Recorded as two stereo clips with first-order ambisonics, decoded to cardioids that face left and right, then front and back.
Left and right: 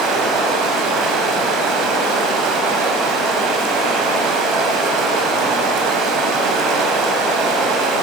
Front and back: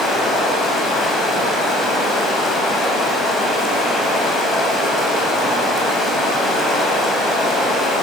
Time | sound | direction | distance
0.0 | running water | 70° right | 3 m